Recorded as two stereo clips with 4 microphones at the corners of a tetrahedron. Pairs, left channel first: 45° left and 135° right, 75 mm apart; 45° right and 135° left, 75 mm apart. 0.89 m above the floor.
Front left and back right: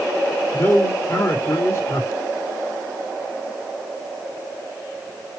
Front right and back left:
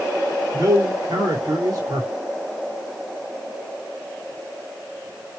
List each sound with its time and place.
0.5 s a man speaking: 100° left, 1.8 m